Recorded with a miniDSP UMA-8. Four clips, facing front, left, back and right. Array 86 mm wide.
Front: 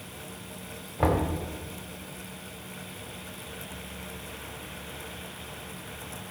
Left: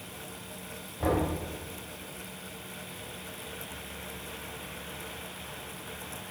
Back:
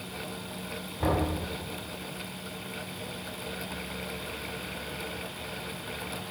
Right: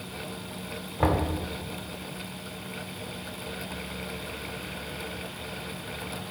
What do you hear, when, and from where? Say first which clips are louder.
1.0 s knocking: right 2 dB, front 2 dB; 45° right, 2.5 m